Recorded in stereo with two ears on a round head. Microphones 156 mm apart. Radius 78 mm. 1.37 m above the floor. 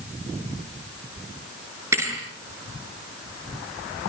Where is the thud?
15° right (ahead or behind), 6.5 m.